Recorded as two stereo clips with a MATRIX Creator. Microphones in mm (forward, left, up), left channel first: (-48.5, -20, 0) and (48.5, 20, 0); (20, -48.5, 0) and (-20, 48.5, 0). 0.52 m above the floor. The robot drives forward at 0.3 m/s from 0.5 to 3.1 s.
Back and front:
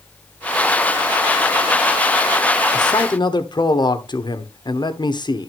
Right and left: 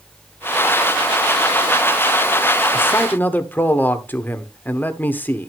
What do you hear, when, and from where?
2.7 s a man speaking: 130° right, 1.0 m; by 5.5 s 135° right, 1.1 m